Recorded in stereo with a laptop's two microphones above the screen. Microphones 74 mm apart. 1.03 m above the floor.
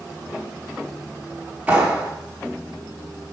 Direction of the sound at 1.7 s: 20° right (ahead or behind).